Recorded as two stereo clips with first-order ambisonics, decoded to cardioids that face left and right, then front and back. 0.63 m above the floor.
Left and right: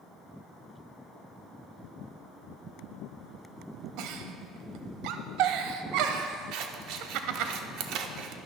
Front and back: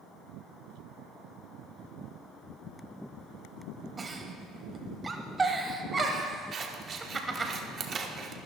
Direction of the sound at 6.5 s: 120° right.